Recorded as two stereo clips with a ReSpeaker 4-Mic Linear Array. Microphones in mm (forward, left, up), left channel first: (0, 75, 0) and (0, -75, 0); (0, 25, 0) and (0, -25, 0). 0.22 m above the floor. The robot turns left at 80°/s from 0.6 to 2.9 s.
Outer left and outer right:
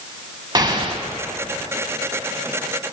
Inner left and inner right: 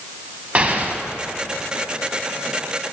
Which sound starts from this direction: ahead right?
An explosion, at 0.6 s.